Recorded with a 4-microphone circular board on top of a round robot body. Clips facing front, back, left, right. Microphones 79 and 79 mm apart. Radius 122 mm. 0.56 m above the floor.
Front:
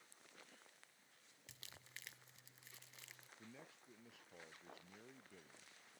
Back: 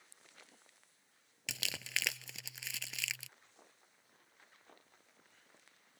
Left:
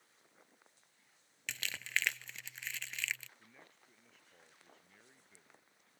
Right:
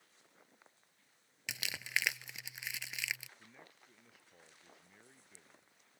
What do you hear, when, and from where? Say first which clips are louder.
1.5 s crumpling: back 19 dB, even; 170° right
3.4 s a man speaking: front 6 dB, right 2 dB; 5° right